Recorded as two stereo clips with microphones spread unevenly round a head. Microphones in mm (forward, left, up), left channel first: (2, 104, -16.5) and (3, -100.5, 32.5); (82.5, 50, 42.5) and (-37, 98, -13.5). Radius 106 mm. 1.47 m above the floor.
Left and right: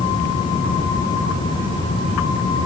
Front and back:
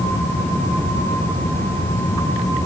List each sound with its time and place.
Only background noise.